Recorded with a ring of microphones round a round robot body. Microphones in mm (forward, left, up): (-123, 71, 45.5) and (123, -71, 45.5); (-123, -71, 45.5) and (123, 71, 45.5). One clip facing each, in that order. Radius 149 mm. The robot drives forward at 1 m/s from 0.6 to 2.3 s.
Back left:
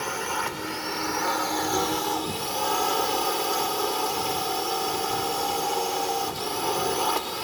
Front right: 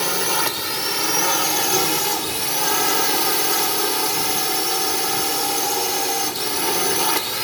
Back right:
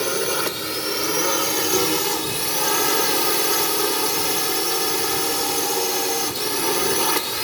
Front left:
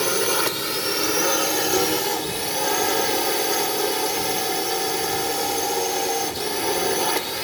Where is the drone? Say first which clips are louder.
Front right 7 dB, even; 60° right; by 7.4 s 80° right.